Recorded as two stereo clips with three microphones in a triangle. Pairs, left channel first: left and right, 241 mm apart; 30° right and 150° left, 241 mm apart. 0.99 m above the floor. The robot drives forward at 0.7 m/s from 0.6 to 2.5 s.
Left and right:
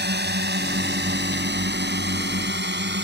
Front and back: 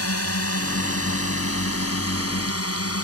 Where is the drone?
45° right.